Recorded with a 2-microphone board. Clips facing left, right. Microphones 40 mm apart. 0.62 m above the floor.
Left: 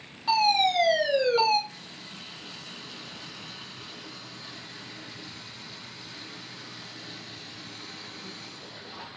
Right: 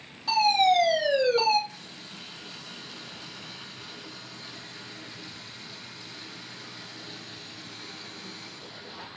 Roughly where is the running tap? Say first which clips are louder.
Even; centre.